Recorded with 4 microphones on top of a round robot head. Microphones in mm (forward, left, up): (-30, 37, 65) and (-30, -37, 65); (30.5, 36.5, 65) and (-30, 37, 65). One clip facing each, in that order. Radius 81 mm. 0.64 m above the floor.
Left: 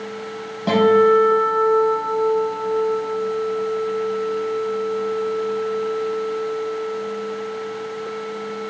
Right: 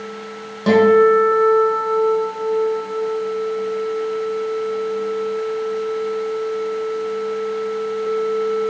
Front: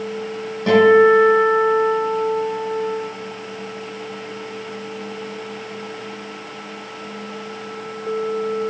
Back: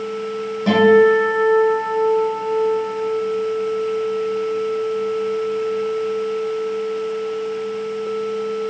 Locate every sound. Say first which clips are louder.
0.7 s a guitar: right 2 dB, front 1 dB; 95° right, 4 m